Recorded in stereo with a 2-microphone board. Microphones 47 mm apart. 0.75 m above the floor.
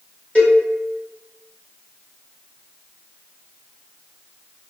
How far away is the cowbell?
About 1.3 m.